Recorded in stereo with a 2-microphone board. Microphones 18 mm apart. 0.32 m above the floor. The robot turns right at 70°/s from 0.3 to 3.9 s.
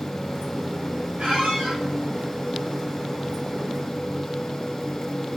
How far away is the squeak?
About 3 m.